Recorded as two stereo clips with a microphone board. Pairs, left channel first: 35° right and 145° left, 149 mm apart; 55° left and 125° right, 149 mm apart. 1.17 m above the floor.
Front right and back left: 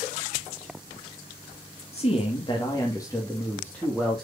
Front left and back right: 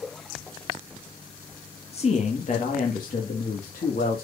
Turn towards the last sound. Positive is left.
turn(degrees=55)